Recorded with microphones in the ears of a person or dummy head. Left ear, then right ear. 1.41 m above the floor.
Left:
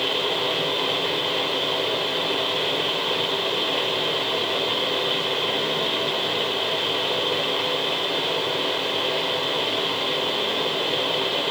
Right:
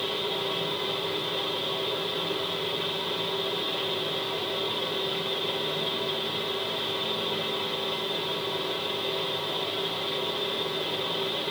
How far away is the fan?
About 0.7 m.